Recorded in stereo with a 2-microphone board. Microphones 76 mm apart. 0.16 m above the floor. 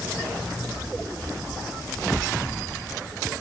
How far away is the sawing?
No sawing in this recording.